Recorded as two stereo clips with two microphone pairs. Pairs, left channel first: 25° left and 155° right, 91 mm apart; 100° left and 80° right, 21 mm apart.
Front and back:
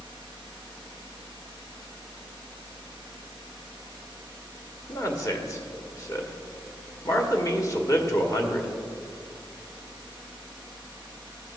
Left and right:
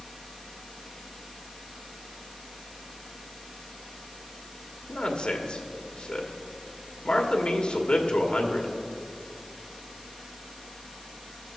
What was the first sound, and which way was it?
A man speaking, 75° left.